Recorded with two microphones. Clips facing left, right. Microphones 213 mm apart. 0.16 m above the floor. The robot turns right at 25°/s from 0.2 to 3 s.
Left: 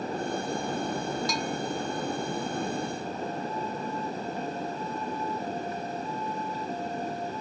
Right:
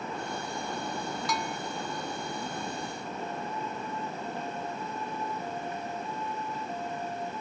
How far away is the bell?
About 0.6 m.